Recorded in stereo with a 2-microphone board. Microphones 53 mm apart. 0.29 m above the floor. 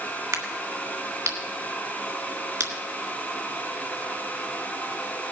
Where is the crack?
65° right (ahead or behind), 1.9 m.